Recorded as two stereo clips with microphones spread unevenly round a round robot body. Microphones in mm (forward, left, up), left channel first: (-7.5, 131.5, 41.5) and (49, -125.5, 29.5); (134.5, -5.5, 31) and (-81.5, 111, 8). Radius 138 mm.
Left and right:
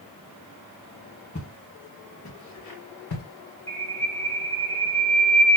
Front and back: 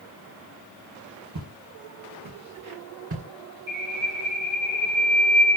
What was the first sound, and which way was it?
Footsteps, 165° left.